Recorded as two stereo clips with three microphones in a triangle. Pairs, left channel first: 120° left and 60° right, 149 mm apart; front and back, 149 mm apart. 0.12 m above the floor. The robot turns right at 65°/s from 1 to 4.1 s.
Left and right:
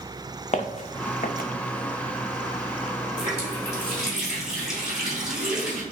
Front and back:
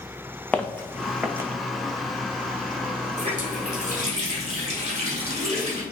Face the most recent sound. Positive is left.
turn(degrees=-145)